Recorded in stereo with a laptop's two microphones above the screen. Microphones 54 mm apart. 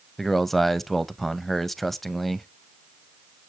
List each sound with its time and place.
0.2 s a man speaking: 5° left (ahead or behind), 0.6 m